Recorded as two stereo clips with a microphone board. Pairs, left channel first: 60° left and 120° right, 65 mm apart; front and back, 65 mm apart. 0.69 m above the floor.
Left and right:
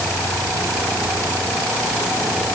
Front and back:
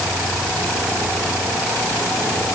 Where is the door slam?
I don't hear a door slam.